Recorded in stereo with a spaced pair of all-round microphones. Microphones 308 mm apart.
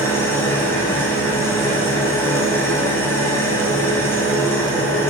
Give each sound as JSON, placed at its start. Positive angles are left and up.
{"t": 0.0, "sound": "an engine running", "side_deg": 10, "distance_m": 8.5}